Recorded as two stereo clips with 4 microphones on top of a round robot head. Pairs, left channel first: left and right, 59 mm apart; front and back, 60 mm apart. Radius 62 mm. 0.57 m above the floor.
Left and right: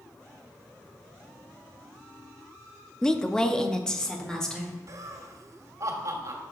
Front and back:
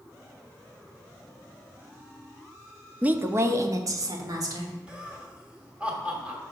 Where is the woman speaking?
155° left, 0.6 m; by 4.8 s 170° left, 1.9 m.